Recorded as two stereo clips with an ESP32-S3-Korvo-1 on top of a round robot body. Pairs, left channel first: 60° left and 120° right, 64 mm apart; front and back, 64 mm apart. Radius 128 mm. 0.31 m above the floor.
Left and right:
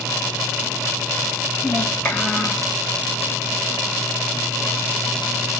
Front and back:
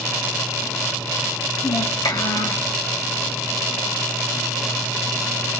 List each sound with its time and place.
1.6 s a child speaking: 5° right, 2.0 m